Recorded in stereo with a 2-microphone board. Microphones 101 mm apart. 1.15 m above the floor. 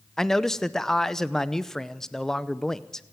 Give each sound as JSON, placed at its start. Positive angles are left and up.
{"t": 0.2, "sound": "a man speaking", "side_deg": 5, "distance_m": 0.7}